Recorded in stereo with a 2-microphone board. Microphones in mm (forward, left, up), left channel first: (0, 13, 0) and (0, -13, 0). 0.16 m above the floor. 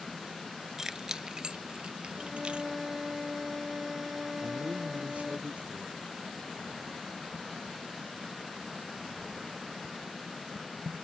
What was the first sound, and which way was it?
Keys jangling, 15° right (ahead or behind).